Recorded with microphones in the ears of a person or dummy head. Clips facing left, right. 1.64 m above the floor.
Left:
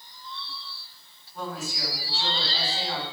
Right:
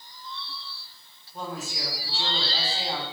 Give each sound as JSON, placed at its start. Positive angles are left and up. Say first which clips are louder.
{"t": 1.3, "sound": "a woman speaking", "louder": "left 1 dB", "side_deg": -20, "distance_m": 4.5}